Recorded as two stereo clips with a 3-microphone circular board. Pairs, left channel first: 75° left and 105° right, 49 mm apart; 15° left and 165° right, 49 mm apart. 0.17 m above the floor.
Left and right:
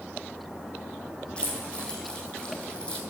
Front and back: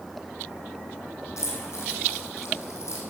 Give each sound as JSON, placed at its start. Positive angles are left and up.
{"t": 1.4, "sound": "keys jangling", "azimuth_deg": 5, "distance_m": 4.5}